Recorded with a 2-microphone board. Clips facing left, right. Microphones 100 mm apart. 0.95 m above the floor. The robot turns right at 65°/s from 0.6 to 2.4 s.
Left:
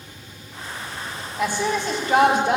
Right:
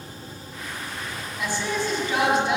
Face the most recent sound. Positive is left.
turn(degrees=125)